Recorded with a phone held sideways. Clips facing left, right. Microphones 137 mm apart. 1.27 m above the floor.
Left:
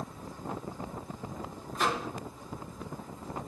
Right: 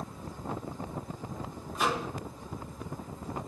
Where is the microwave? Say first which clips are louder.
Even; 5° right (ahead or behind), 1.4 m.